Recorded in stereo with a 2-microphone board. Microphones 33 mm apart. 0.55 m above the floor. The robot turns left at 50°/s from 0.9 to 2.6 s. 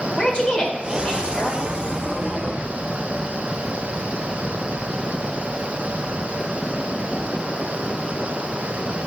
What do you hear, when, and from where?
0.2 s a woman speaking: 150° left, 1.4 m; by 1.6 s 110° left, 1.4 m